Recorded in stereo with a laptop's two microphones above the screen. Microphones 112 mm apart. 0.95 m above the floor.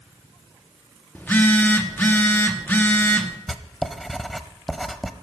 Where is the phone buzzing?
15° left (ahead or behind), 0.9 m.